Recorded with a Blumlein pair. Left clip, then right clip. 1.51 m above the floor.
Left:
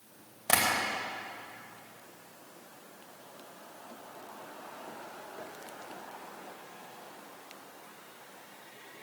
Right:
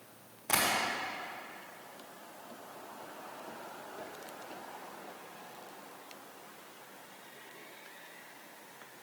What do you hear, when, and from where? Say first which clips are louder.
0.5 s tapping: left 3 dB; 70° left, 2.5 m